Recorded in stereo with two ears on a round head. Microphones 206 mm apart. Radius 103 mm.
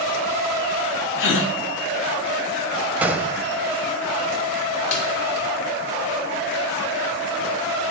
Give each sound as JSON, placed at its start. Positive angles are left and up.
{"t": 1.2, "sound": "a gasp", "side_deg": 55, "distance_m": 1.2}
{"t": 3.0, "sound": "a gunshot", "side_deg": -5, "distance_m": 0.6}
{"t": 4.9, "sound": "a snare drum", "side_deg": 65, "distance_m": 2.5}